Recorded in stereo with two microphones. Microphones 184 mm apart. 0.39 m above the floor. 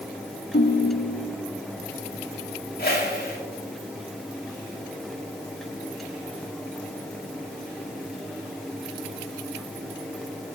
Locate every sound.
0.5 s a ringtone: 60° left (ahead or behind), 1.1 m
2.8 s a whoosh: 50° left (ahead or behind), 1.6 m